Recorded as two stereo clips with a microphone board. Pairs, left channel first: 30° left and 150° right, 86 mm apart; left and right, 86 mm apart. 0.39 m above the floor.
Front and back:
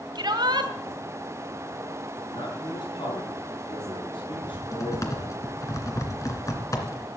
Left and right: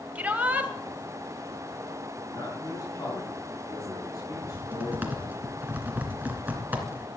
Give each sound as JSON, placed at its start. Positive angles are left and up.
{"t": 0.1, "sound": "a shout", "azimuth_deg": -160, "distance_m": 2.5}
{"t": 2.3, "sound": "a man speaking", "azimuth_deg": 45, "distance_m": 6.0}
{"t": 4.3, "sound": "typing on a keyboard", "azimuth_deg": -20, "distance_m": 2.5}